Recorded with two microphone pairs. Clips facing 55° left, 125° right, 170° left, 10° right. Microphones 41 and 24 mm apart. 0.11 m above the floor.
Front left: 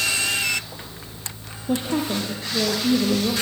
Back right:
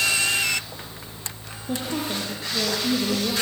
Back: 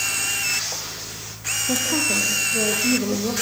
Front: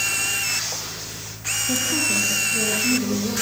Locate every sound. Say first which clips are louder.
1.7 s a woman speaking: front left 4 dB, back 1 dB; 115° left, 3 m; by 3.3 s 135° left, 4 m